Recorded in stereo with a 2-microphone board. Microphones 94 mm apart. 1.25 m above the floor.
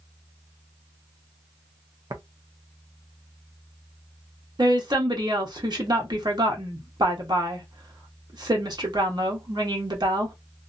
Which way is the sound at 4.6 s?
50° right (ahead or behind).